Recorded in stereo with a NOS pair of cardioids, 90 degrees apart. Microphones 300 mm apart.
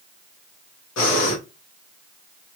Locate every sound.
1.0 s breathing: 60° left, 1.4 m